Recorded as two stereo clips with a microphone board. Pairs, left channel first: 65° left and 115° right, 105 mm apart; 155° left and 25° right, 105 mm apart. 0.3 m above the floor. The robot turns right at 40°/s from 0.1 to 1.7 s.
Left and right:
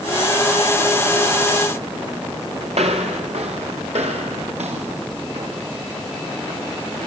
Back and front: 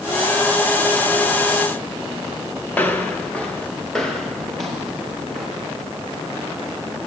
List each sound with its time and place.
2.7 s footsteps: 130° right, 3.5 m; by 5.6 s 110° right, 7.5 m